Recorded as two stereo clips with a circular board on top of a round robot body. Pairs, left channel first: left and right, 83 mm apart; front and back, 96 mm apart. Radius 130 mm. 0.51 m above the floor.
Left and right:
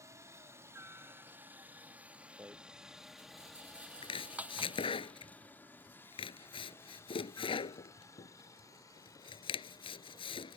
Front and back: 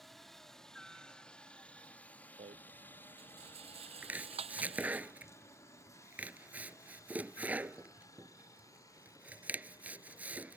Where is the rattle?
165° right.